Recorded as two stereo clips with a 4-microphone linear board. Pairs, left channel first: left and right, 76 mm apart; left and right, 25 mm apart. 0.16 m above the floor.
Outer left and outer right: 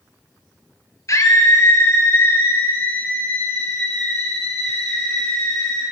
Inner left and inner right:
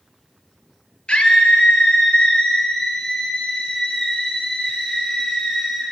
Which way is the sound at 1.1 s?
50° left (ahead or behind).